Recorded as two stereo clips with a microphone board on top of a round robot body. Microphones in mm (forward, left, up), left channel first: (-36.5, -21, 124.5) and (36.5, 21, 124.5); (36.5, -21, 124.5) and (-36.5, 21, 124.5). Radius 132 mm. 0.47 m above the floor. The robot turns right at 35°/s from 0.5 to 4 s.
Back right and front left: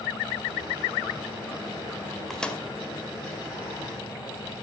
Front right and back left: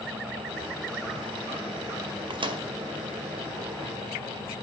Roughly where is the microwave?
Behind left.